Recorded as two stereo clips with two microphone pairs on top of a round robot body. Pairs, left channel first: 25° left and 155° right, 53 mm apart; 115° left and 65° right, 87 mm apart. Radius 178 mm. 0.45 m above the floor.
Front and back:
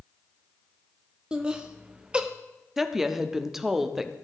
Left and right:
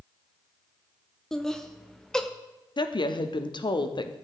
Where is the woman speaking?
130° left, 1.0 m.